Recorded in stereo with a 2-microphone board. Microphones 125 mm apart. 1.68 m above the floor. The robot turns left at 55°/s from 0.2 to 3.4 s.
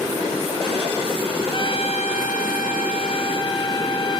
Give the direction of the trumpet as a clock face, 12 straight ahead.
7 o'clock.